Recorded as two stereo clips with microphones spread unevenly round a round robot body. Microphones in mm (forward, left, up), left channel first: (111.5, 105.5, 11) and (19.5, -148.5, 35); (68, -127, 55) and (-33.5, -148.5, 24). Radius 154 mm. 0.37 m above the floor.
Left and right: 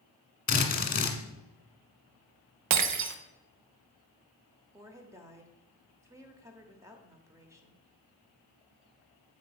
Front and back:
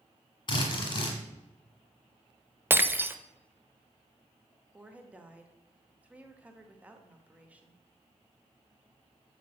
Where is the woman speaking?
170° left, 0.9 m.